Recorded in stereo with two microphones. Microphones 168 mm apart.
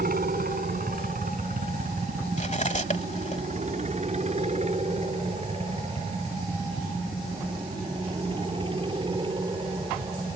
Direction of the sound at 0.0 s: 60° right (ahead or behind).